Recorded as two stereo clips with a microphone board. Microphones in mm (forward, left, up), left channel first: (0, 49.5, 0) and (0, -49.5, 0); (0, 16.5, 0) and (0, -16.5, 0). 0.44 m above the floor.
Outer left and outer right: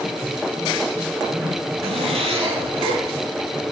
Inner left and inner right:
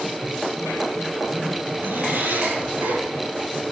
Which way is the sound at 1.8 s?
75° right (ahead or behind).